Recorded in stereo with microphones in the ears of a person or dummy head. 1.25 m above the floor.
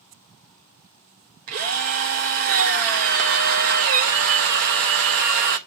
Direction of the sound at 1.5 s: 45° right (ahead or behind).